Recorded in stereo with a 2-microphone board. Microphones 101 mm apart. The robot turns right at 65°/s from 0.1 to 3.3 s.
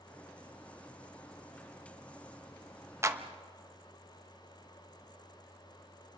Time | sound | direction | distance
3.0 | a clap | 25° right (ahead or behind) | 1.0 m